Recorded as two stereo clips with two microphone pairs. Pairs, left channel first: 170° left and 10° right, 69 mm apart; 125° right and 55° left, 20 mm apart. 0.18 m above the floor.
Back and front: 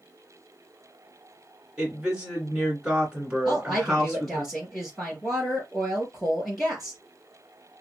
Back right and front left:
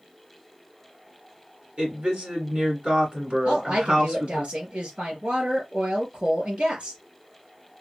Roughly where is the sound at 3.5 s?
Left.